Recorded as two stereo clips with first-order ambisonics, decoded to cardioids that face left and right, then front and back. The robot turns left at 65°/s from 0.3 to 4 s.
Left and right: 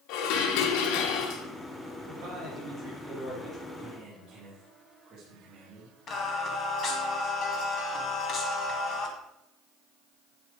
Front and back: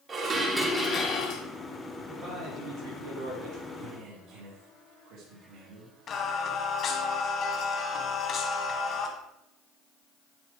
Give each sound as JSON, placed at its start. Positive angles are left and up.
{"t": 0.1, "sound": "dishes clattering", "azimuth_deg": 105, "distance_m": 1.7}
{"t": 2.1, "sound": "a man speaking", "azimuth_deg": -105, "distance_m": 3.5}
{"t": 3.8, "sound": "a man speaking", "azimuth_deg": -150, "distance_m": 2.5}
{"t": 6.1, "sound": "singing", "azimuth_deg": 50, "distance_m": 1.5}